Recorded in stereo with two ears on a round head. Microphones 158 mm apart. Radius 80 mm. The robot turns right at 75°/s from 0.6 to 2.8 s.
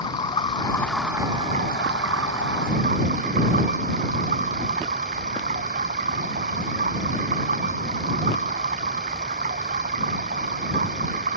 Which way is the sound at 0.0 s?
150° left.